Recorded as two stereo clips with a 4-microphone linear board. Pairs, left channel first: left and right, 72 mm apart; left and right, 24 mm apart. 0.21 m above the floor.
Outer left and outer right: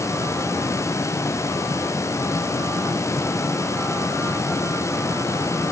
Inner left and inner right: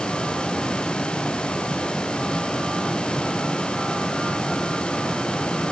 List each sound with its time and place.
Only background noise.